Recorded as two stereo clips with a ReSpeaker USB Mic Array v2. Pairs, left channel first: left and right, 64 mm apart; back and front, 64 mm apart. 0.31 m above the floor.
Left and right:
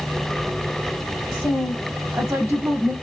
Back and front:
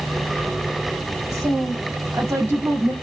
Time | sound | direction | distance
1.3 | a woman speaking | 25° right | 2.0 m